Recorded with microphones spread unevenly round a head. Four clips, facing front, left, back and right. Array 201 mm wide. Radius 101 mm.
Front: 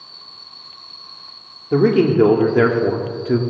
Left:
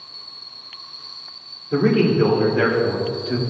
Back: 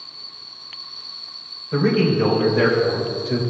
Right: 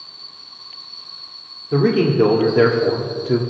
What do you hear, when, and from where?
1.7 s a man speaking: 10° right, 2.5 m; by 3.4 s 40° right, 2.5 m